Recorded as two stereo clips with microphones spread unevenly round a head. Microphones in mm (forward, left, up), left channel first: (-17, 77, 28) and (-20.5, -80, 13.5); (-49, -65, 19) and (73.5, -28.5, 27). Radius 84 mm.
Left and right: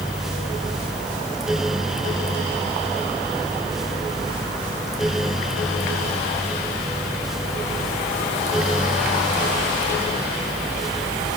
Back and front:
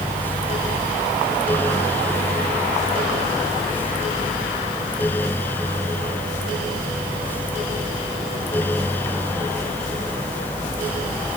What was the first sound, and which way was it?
Only background noise.